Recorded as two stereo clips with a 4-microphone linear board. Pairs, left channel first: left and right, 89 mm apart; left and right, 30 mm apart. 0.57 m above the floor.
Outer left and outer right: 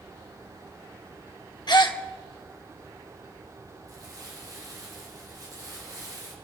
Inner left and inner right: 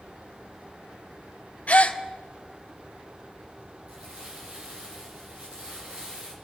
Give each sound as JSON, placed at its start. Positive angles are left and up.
{"t": 1.7, "sound": "a gasp", "side_deg": 55, "distance_m": 0.9}
{"t": 3.9, "sound": "crumpling", "side_deg": -45, "distance_m": 6.0}